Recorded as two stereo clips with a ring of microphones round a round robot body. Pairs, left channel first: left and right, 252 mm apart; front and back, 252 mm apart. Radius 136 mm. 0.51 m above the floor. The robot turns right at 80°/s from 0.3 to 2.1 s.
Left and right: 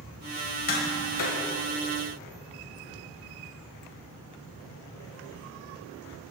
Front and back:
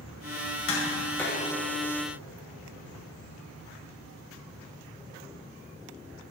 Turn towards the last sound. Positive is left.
turn(degrees=155)